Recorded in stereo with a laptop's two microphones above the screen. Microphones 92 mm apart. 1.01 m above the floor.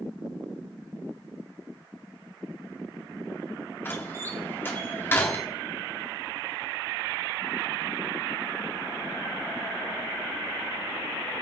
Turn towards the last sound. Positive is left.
turn(degrees=25)  # may be behind; listen again after turning